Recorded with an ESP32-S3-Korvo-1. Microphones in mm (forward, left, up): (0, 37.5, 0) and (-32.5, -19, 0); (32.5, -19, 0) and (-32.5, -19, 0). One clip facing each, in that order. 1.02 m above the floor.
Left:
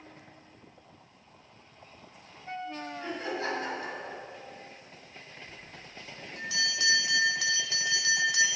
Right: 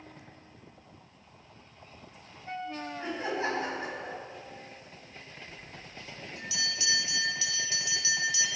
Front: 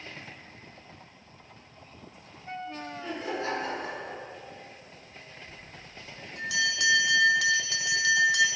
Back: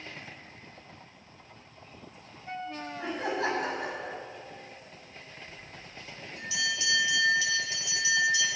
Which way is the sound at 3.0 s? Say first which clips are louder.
Right 2 dB, back 3 dB; 175° left.